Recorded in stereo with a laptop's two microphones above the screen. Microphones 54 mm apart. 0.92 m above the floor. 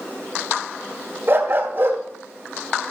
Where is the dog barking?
35° right (ahead or behind), 1.2 m.